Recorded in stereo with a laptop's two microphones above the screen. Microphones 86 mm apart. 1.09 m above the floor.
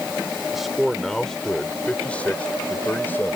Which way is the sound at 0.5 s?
Centre (ahead or behind).